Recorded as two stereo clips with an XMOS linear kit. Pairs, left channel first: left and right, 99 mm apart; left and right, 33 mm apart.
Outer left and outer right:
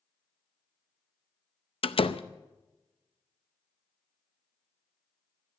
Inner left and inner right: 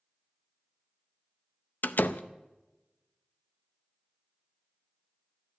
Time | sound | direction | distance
1.8 | a door slam | 65° left (ahead or behind) | 0.6 m